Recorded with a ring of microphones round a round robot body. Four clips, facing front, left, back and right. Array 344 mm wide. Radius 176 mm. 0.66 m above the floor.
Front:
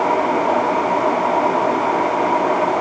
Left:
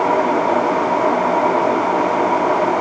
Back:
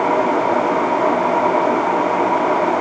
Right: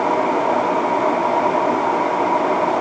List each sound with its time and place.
Only background noise.